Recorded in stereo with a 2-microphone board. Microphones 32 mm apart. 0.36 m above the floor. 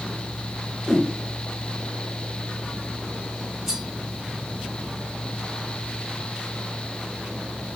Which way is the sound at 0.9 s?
5° right (ahead or behind).